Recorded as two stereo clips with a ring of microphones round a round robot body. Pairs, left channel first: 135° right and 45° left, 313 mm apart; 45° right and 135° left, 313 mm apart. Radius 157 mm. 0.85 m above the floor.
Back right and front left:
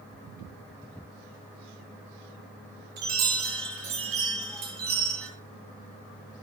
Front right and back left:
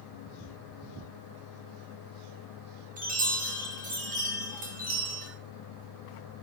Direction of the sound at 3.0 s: 70° left.